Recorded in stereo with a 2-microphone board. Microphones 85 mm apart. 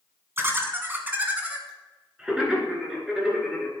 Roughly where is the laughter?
Right.